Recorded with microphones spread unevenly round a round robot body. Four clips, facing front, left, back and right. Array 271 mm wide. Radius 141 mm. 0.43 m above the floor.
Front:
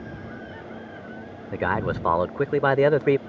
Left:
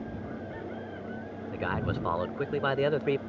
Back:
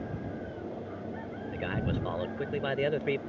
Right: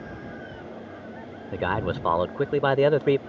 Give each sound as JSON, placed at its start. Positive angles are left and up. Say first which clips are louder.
{"t": 1.5, "sound": "a man speaking", "louder": "right 6 dB, front 9 dB", "azimuth_deg": -30}